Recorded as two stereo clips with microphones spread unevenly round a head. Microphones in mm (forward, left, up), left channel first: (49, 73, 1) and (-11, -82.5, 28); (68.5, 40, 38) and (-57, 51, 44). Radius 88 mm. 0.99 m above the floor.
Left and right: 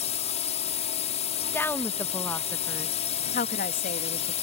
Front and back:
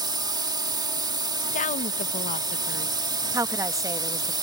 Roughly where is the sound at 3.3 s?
Left.